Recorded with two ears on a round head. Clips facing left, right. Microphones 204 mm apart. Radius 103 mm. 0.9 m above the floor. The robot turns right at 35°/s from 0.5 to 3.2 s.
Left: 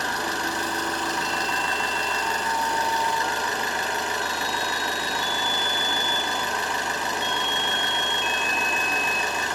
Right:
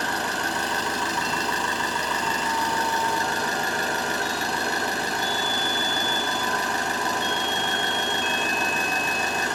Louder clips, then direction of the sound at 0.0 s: Even; 130° right.